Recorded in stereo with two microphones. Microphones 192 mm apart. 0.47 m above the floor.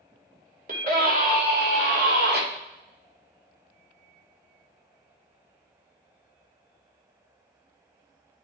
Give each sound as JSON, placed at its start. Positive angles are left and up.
{"t": 0.7, "sound": "a scream", "side_deg": -45, "distance_m": 1.8}